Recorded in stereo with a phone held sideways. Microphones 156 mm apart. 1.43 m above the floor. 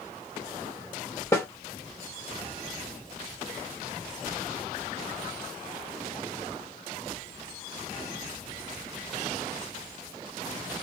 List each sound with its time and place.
1.3 s a snare drum: 15° left (ahead or behind), 1.3 m